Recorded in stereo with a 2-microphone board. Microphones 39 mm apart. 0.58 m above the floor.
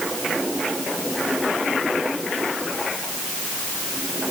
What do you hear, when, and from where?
Only background noise.